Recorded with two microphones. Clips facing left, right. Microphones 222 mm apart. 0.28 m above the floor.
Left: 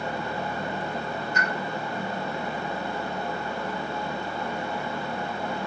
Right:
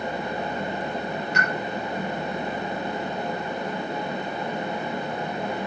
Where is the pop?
80° right, 6 m.